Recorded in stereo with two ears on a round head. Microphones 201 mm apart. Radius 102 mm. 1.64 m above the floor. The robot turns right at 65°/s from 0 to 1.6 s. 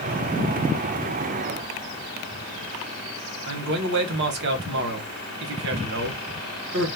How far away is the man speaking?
About 0.9 m.